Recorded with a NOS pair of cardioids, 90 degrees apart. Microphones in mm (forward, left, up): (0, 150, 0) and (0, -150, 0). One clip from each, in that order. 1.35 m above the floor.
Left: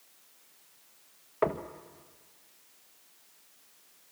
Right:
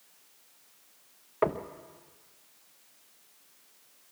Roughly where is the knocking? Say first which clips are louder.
Right 1 dB; ahead.